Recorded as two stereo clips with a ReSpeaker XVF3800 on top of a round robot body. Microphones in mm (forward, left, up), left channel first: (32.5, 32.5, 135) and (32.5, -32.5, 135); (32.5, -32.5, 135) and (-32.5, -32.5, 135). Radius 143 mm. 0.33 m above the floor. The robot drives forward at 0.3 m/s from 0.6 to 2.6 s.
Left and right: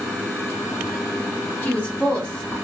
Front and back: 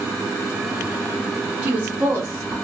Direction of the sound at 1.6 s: 130° left.